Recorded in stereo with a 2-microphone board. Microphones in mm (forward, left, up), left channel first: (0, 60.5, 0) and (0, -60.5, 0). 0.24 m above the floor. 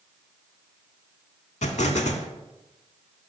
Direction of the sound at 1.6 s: 75° left (ahead or behind).